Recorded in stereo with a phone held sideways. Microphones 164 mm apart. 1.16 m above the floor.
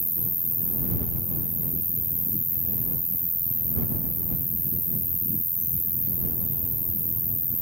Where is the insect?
75° right (ahead or behind).